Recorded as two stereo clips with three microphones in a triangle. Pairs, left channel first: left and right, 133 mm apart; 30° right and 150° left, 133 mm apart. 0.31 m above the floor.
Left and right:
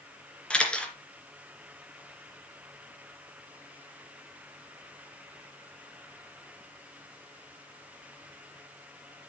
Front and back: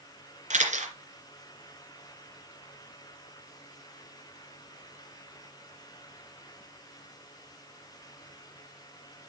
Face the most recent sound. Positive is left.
turn(degrees=175)